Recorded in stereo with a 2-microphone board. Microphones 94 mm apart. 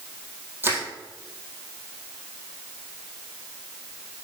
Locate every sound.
0.6 s crushing: 25° right (ahead or behind), 1.8 m